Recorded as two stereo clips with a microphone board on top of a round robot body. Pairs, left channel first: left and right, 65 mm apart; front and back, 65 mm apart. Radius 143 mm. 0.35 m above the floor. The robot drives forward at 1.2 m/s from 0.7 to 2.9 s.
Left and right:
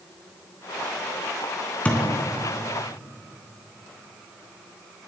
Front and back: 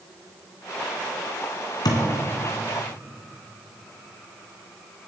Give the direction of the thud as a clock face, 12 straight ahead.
11 o'clock.